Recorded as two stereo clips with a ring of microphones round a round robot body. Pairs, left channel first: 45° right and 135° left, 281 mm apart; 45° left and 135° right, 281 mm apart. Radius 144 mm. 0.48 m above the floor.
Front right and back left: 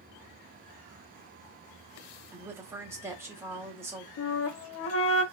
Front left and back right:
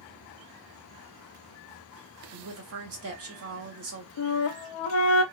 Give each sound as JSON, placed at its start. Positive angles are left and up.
{"t": 2.3, "sound": "a woman speaking", "azimuth_deg": -145, "distance_m": 1.0}
{"t": 4.2, "sound": "a flute", "azimuth_deg": 0, "distance_m": 0.6}